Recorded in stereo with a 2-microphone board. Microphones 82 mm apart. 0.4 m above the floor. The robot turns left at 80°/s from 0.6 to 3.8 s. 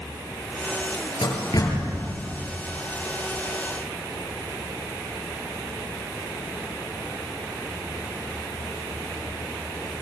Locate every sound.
1.2 s a door slam: 80° left, 7 m; by 2.0 s 20° left (ahead or behind), 7 m